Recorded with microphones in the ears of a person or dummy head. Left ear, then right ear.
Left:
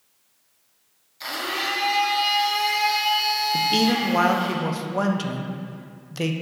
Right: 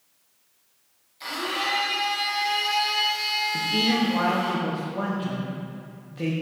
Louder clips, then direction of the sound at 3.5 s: Left 3 dB; 75° left (ahead or behind).